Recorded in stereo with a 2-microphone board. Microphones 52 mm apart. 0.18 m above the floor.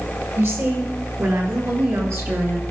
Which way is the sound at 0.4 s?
60° right (ahead or behind).